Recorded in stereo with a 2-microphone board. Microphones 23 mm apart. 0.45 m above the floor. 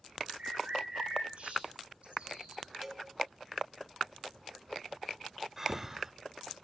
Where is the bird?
60° right (ahead or behind), 8 m.